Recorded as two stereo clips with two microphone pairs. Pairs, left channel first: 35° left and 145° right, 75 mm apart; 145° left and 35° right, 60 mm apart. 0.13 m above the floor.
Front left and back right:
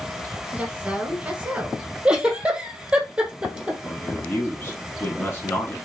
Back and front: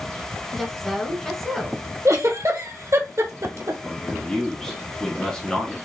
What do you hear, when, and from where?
0.5 s a woman speaking: 140° right, 1.2 m
2.0 s a giggle: 65° right, 1.0 m
3.8 s a man speaking: 75° left, 1.4 m